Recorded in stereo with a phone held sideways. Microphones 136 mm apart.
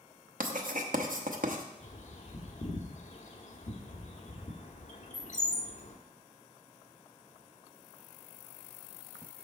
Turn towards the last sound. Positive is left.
turn(degrees=60)  # may be behind; listen again after turning